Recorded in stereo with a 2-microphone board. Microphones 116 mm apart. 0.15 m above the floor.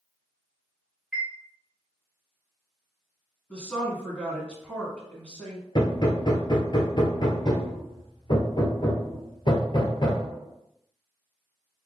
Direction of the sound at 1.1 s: 5° left (ahead or behind).